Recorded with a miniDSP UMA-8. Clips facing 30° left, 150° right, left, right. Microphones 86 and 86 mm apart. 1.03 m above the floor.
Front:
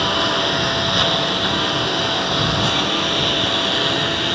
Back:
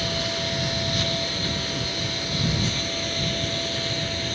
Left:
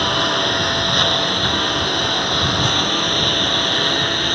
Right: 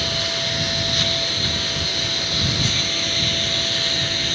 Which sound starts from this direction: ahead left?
A lawn mower, at 0.0 s.